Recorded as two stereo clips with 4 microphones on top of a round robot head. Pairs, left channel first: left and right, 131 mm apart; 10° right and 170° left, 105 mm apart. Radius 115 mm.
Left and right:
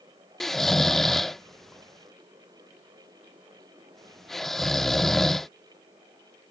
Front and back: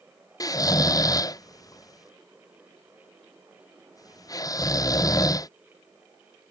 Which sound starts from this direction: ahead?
Snoring, at 0.4 s.